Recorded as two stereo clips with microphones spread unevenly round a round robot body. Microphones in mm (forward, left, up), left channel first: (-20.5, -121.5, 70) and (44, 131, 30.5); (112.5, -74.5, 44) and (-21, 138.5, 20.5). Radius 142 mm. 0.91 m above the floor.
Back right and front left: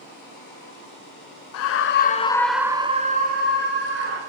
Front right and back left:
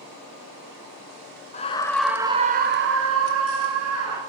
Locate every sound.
1.5 s a scream: 120° right, 0.6 m; by 4.2 s 110° left, 1.1 m